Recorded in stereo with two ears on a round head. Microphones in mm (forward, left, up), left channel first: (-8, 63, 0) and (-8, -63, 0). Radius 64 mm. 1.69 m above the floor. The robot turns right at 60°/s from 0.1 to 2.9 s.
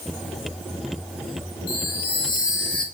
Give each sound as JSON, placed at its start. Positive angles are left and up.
{"t": 1.7, "sound": "a chime", "azimuth_deg": 105, "distance_m": 4.0}